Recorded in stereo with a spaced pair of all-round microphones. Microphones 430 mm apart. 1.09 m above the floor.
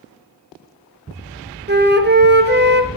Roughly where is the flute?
Right.